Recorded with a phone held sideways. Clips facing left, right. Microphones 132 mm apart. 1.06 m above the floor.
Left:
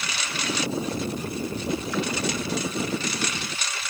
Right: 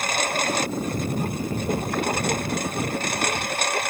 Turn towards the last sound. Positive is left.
turn(degrees=-55)  # may be behind; listen again after turning